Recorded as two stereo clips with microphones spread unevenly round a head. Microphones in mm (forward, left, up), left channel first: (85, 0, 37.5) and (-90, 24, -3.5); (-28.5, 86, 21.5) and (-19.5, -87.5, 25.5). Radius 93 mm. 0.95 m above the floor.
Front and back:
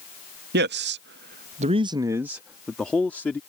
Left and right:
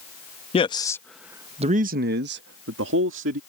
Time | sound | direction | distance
0.5 | a man speaking | 150° left | ?